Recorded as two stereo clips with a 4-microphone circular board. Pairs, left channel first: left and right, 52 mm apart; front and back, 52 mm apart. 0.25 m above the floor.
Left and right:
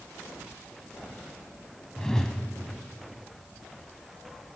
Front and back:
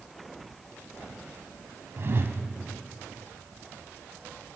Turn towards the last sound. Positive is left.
turn(degrees=165)